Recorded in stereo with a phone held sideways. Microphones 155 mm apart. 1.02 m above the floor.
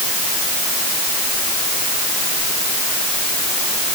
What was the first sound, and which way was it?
Only background noise.